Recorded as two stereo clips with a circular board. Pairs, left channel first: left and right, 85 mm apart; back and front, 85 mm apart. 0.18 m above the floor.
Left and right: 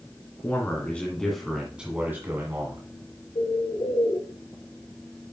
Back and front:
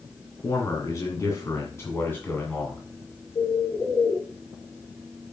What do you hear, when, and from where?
0.4 s a man speaking: 145° left, 2.5 m; by 2.8 s 115° right, 2.5 m
3.4 s a bird: 120° left, 3 m